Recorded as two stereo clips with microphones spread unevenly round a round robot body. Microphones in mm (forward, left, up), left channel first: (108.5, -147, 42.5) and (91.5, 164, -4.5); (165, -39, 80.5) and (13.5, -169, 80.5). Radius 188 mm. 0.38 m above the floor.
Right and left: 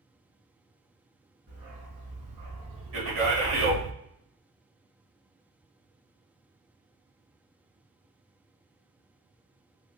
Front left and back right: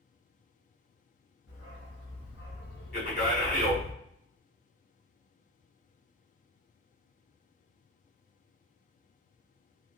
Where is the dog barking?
90° left, 1.7 m; by 3.9 s 55° left, 0.5 m.